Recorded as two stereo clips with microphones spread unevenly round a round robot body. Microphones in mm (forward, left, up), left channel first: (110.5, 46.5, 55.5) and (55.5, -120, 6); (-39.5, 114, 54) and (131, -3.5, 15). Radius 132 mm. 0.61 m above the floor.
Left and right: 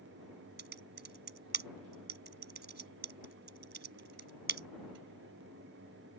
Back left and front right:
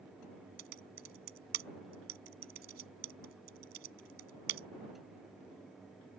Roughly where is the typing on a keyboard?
Right.